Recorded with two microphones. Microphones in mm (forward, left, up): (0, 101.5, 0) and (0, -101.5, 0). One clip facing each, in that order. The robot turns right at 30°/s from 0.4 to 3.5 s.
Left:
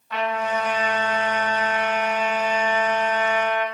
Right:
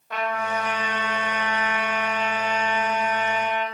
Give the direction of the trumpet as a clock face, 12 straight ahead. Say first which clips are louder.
Left 3 dB; 2 o'clock.